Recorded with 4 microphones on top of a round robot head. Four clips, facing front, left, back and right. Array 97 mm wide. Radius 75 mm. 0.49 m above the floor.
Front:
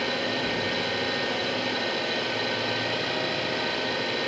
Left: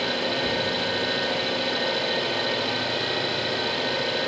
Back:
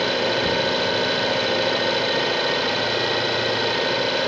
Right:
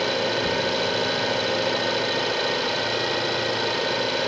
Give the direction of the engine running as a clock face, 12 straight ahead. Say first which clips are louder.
Right 2 dB, back 7 dB; 5 o'clock.